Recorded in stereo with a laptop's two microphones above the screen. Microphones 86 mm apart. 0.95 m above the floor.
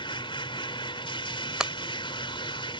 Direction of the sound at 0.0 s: 80° left.